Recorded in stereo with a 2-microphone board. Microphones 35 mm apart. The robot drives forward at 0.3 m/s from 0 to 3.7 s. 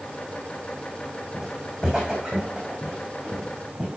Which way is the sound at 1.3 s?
15° right (ahead or behind).